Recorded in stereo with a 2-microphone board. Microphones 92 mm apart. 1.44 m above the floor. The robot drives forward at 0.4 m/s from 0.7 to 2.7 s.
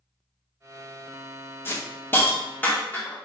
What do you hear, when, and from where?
1.6 s a hiss: 25° left (ahead or behind), 0.6 m; by 3.1 s 20° left (ahead or behind), 0.8 m